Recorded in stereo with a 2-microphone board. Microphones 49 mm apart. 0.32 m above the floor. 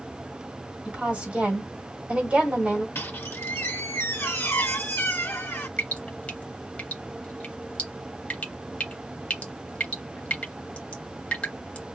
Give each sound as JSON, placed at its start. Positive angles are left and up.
{"t": 0.8, "sound": "a woman speaking", "side_deg": -30, "distance_m": 1.4}
{"t": 3.0, "sound": "a squeak", "side_deg": 55, "distance_m": 1.3}
{"t": 5.8, "sound": "dripping", "side_deg": 30, "distance_m": 0.7}